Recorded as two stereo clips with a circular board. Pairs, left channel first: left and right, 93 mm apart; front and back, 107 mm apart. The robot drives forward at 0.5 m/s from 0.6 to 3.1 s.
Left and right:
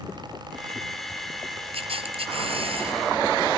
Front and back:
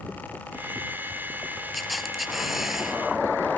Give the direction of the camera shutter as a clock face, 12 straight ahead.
3 o'clock.